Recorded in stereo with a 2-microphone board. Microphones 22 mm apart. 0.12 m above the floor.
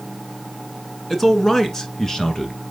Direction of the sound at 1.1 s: 15° left (ahead or behind).